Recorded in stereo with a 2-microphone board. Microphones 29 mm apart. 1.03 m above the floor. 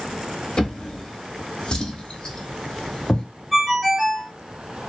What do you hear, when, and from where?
0.6 s a drawer: 30° left (ahead or behind), 0.8 m
3.5 s a ringtone: 10° right (ahead or behind), 0.6 m